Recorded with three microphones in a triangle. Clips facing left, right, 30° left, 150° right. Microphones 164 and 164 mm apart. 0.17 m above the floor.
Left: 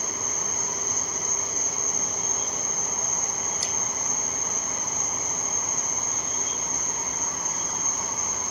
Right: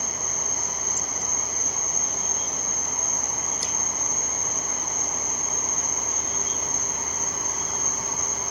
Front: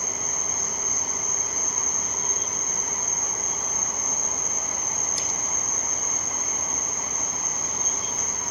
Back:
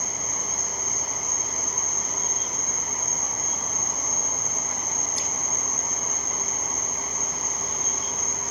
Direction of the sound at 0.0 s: 15° right.